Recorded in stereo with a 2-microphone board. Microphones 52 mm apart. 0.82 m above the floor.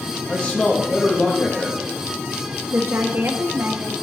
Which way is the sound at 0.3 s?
30° left (ahead or behind).